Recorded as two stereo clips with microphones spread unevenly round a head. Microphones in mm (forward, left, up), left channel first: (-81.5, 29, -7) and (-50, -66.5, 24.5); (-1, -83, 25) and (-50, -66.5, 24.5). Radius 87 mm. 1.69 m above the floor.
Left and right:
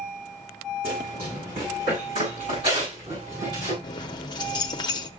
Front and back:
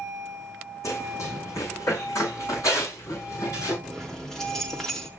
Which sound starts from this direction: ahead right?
Running footsteps, at 0.8 s.